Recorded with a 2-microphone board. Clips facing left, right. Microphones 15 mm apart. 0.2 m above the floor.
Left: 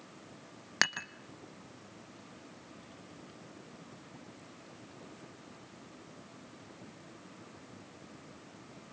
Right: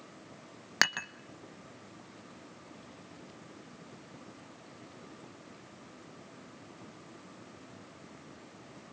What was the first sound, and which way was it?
Dishes clattering, 15° right (ahead or behind).